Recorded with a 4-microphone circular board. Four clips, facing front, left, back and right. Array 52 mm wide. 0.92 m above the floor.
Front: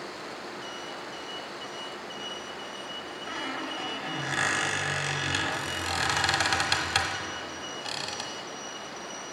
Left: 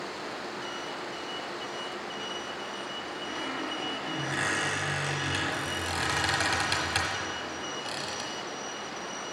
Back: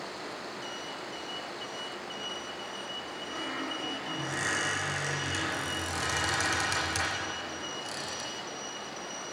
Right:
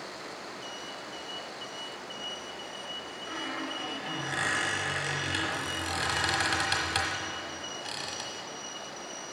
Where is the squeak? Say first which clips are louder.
Even, front 2 dB; straight ahead, 1.0 m.